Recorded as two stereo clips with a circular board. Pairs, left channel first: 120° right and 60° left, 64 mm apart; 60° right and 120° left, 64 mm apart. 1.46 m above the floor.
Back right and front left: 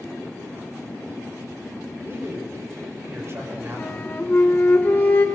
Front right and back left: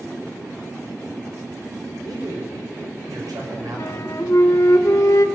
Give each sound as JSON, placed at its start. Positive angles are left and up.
{"t": 2.0, "sound": "a man speaking", "azimuth_deg": 110, "distance_m": 6.5}
{"t": 3.8, "sound": "a flute", "azimuth_deg": -70, "distance_m": 1.6}